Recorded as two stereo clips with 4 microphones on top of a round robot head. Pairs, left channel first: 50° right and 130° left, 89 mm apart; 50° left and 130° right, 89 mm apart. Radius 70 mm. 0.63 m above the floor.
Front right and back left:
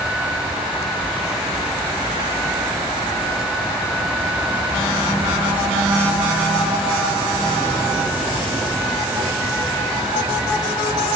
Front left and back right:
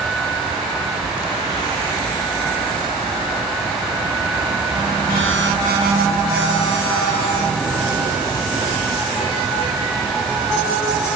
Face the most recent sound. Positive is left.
No sound to turn to.